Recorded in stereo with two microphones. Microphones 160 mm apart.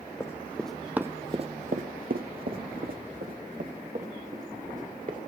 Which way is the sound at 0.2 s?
15° left (ahead or behind).